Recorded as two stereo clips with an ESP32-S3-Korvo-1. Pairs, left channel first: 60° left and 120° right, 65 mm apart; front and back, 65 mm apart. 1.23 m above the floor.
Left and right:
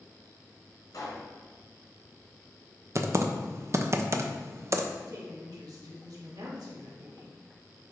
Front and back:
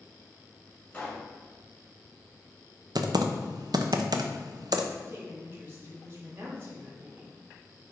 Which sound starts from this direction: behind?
Typing on a keyboard, at 3.0 s.